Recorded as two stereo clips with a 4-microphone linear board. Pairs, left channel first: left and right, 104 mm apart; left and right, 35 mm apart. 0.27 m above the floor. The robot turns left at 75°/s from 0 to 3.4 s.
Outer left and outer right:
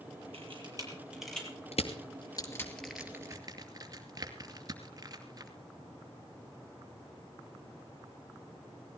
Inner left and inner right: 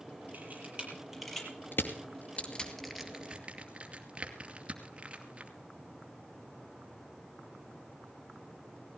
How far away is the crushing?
About 2.5 m.